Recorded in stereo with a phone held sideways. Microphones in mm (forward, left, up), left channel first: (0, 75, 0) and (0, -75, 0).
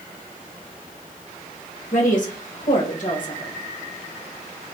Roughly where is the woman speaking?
Left.